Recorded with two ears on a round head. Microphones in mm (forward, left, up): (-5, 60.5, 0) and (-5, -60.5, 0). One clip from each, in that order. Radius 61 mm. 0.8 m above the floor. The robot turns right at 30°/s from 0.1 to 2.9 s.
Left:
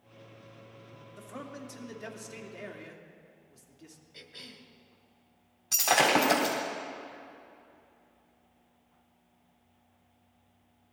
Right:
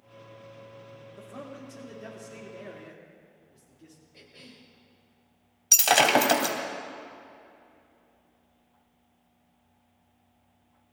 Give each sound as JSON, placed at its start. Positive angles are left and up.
{"t": 1.2, "sound": "a man speaking", "azimuth_deg": 85, "distance_m": 2.5}
{"t": 4.1, "sound": "a cough", "side_deg": 55, "distance_m": 2.5}
{"t": 5.7, "sound": "breaking glass", "side_deg": -85, "distance_m": 2.0}